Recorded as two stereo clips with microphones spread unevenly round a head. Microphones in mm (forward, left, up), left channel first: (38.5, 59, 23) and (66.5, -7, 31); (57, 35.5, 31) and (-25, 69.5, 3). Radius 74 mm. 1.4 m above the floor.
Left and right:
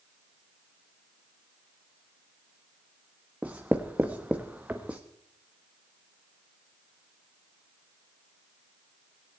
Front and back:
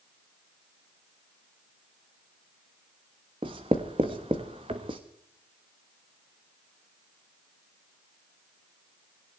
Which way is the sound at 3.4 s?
140° right.